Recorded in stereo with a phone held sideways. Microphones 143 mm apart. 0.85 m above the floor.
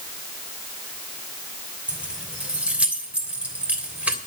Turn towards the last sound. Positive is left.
turn(degrees=-10)  # may be behind; listen again after turning